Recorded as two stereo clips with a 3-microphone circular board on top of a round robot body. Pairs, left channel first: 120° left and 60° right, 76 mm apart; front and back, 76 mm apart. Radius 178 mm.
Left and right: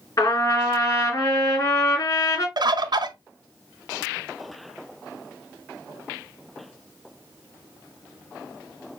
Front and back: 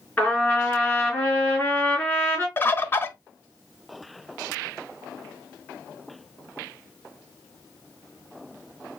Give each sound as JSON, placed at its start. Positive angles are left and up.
{"t": 0.2, "sound": "a trumpet", "azimuth_deg": 75, "distance_m": 3.5}
{"t": 2.6, "sound": "a bird", "azimuth_deg": -60, "distance_m": 0.7}